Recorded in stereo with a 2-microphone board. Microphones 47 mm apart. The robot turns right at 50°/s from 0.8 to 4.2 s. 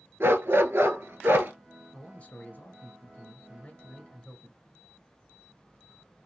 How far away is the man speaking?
About 2.0 m.